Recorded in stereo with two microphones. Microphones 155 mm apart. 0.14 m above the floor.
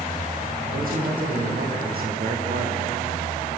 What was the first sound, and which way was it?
A man speaking, 70° right (ahead or behind).